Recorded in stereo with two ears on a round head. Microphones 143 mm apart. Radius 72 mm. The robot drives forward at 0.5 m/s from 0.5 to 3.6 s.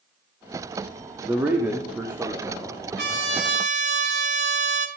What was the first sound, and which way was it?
A man speaking, 15° right (ahead or behind).